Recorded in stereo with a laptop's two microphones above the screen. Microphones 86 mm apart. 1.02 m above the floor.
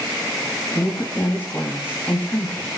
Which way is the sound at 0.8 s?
25° left (ahead or behind).